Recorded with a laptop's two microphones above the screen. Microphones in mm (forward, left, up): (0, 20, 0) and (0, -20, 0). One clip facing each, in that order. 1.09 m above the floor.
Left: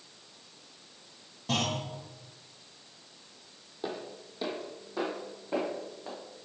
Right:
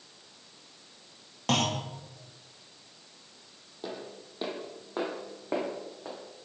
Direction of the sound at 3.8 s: 15° left (ahead or behind).